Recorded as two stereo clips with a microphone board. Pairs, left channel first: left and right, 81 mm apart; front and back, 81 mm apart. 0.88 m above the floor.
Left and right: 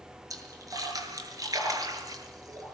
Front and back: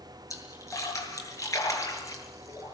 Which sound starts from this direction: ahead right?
A splash, at 0.3 s.